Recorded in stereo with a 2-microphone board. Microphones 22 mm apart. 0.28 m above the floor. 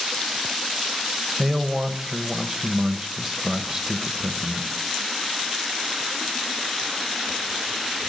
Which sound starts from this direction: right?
A man speaking, at 1.4 s.